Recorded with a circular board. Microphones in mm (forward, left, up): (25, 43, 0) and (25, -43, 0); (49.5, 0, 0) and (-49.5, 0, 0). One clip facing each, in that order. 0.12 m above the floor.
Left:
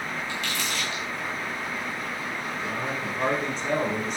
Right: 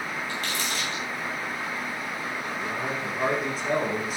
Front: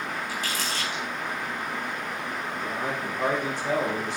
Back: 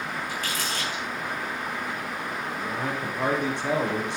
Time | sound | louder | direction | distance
0.3 | crumpling | even, even | 140° right | 4.5 m
2.6 | a man speaking | even, even | 175° right | 4 m